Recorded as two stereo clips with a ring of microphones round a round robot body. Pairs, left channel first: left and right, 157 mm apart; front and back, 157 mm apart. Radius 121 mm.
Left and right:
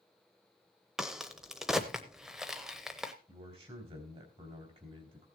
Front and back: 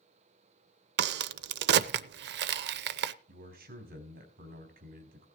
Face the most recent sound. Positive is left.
turn(degrees=-150)